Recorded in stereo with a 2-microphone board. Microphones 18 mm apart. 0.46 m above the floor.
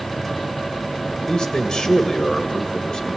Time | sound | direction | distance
1.3 | a man speaking | 50° left (ahead or behind) | 1.4 m